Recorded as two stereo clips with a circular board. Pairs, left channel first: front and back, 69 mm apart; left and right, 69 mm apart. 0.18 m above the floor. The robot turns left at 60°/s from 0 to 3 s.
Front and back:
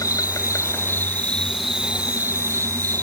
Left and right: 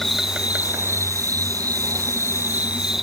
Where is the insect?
5° left; by 3.0 s 175° right.